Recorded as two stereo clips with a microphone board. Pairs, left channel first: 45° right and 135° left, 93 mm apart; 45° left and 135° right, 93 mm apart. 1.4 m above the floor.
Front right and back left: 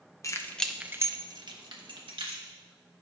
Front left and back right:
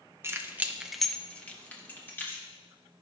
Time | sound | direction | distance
0.2 | keys jangling | 80° right | 0.7 m